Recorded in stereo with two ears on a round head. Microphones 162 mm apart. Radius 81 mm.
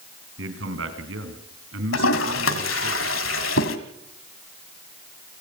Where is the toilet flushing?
80° left, 1.9 m.